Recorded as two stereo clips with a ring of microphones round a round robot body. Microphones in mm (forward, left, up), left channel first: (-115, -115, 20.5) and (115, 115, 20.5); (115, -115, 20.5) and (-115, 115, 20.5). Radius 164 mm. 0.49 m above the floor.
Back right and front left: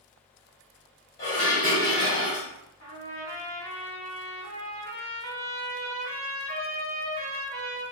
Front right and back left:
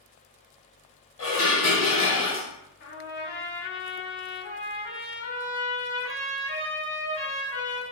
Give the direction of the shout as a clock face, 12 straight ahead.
I don't hear a shout.